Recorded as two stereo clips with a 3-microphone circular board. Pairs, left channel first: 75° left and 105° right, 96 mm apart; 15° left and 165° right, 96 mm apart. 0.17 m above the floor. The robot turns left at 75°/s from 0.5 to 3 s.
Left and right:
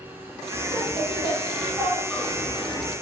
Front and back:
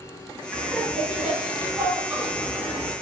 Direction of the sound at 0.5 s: 60° right.